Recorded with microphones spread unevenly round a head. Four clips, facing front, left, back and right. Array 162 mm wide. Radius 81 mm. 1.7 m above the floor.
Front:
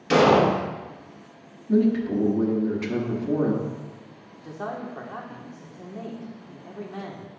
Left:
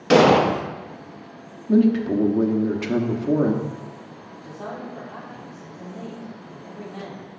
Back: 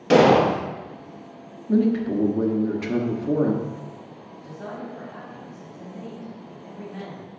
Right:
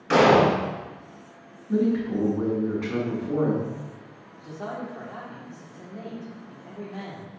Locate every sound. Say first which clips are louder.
0.1 s an explosion: left 3 dB, back 2 dB; 135° left, 1.0 m
1.7 s a man speaking: left 6 dB, even; 115° left, 1.0 m
4.4 s a man speaking: even, front 3 dB; straight ahead, 1.7 m